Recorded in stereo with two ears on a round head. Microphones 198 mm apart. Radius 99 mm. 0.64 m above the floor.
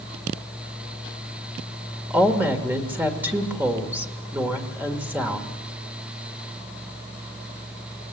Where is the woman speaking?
10° right (ahead or behind), 1.7 m.